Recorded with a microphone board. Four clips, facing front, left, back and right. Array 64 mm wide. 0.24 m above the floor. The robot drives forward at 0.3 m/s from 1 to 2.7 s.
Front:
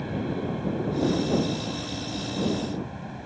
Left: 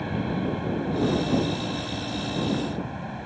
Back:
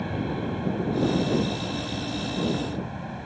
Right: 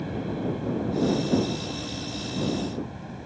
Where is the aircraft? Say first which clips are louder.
Left 2 dB, even; 115° left.